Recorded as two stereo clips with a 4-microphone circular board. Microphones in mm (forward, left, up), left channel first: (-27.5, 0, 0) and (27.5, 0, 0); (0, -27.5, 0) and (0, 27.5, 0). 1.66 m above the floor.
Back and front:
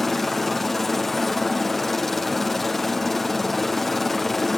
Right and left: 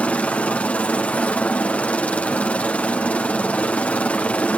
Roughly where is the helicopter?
Right.